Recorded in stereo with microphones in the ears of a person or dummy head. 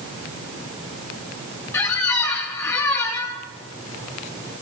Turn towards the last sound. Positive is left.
turn(degrees=10)  # may be behind; listen again after turning